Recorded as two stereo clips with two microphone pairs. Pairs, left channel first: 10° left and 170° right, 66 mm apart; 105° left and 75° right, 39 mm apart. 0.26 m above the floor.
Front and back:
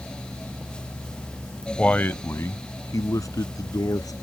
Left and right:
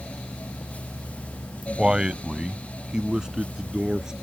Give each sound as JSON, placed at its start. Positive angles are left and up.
{"t": 1.8, "sound": "a man speaking", "azimuth_deg": -40}